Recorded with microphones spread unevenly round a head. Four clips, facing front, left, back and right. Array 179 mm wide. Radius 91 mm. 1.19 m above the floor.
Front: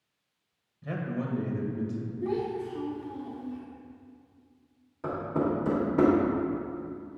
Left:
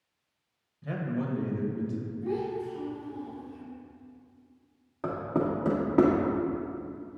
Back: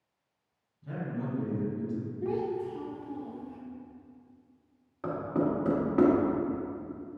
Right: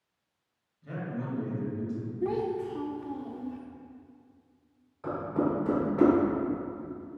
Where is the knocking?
95° left, 1.9 m.